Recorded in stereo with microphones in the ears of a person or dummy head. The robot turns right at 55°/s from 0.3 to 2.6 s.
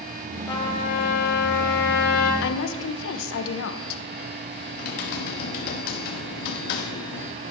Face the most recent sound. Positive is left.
turn(degrees=50)  # may be behind; listen again after turning